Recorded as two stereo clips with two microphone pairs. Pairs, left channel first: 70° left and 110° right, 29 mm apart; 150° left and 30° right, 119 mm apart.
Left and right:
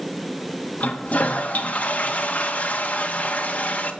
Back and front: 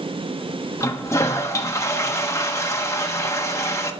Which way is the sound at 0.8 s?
90° left.